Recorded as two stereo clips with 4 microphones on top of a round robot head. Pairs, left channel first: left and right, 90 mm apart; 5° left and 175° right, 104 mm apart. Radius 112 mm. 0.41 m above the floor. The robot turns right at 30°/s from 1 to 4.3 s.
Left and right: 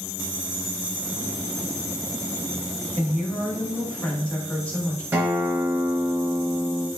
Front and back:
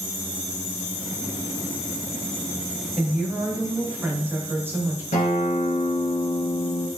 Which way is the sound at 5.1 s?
20° right.